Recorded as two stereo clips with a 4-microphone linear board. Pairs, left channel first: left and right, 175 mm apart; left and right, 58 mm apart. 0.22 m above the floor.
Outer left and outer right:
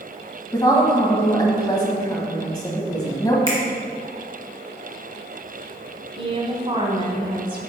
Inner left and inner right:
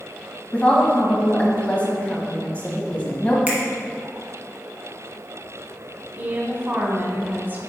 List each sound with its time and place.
0.5 s a woman speaking: 25° left (ahead or behind), 1.0 m
3.5 s a finger snap: 25° right (ahead or behind), 1.8 m
6.2 s a woman speaking: 30° right (ahead or behind), 1.2 m